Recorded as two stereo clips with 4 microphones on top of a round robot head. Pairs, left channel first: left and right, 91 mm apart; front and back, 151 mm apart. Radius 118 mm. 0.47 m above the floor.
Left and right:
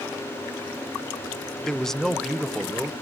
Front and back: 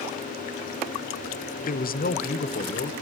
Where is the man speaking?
5° left, 1.5 m; by 2.9 s straight ahead, 2 m.